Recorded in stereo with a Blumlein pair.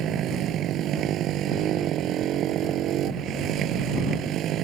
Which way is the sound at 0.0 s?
30° right.